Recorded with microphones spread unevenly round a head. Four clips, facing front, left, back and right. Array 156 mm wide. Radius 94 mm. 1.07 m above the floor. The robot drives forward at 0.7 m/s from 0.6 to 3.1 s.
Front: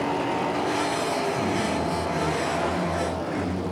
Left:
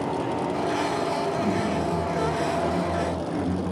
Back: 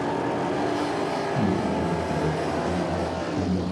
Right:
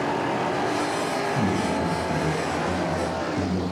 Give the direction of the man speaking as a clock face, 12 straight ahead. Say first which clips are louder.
Right 1 dB, back 1 dB; 5 o'clock.